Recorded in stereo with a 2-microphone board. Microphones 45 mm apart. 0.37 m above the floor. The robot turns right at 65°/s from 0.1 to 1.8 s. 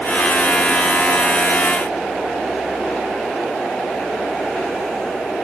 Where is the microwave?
I don't hear a microwave.